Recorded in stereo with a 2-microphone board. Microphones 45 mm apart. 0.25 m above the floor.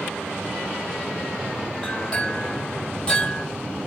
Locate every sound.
1.8 s a clink: 20° left (ahead or behind), 4.5 m